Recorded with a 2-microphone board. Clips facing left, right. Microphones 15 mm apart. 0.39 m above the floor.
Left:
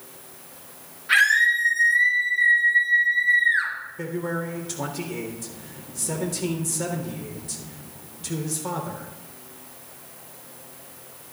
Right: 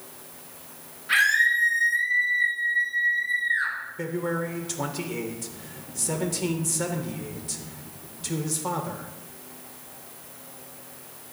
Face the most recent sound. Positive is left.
turn(degrees=-10)  # may be behind; listen again after turning